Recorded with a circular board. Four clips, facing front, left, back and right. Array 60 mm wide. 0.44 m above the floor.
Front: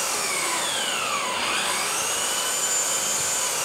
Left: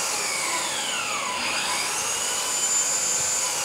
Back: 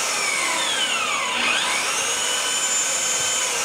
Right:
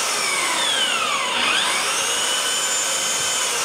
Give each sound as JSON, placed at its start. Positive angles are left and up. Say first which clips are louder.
{"t": 0.0, "sound": "an engine running", "louder": "right 6 dB, back 3 dB", "azimuth_deg": -105, "distance_m": 3.5}